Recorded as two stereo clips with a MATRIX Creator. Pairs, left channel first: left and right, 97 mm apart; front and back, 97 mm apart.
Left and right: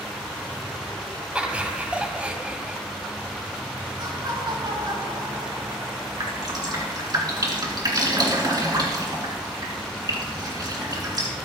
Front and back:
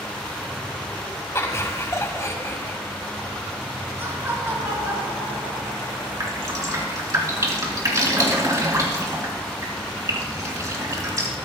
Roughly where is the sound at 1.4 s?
Ahead right.